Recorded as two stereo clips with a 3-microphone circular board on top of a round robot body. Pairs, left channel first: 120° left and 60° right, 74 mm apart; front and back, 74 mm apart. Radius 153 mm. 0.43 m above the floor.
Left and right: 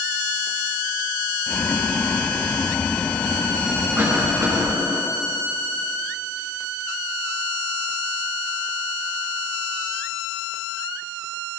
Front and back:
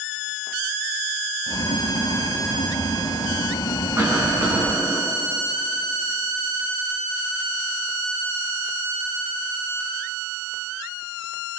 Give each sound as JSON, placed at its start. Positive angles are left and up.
{"t": 1.5, "sound": "boiling", "azimuth_deg": 45, "distance_m": 0.9}
{"t": 4.0, "sound": "a cough", "azimuth_deg": -125, "distance_m": 7.5}